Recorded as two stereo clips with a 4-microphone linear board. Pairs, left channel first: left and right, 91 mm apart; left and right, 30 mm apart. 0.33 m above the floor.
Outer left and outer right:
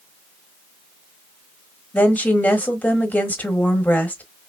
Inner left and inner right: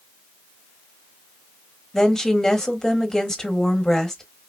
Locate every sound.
1.9 s a woman speaking: 15° left (ahead or behind), 1.3 m